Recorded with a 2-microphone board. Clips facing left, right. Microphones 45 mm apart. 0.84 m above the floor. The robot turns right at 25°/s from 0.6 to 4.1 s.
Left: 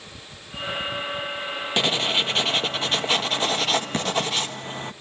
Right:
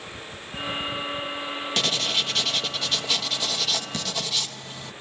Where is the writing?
35° left, 1.0 m; by 4.9 s 95° left, 1.0 m.